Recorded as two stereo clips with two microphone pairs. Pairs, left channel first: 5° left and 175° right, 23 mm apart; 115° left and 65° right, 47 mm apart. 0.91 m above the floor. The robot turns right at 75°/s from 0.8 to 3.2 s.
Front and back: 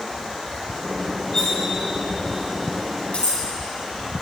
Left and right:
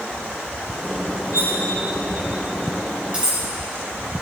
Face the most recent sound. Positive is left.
turn(degrees=0)